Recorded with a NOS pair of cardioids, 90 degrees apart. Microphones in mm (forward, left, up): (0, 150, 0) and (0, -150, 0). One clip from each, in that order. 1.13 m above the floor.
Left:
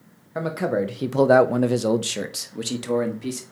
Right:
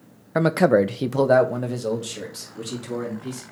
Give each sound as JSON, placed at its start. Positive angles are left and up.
{"t": 0.3, "sound": "a man speaking", "azimuth_deg": -50, "distance_m": 0.7}